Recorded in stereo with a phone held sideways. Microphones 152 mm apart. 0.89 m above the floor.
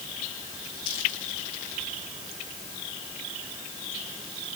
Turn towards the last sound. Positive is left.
No sound to turn to.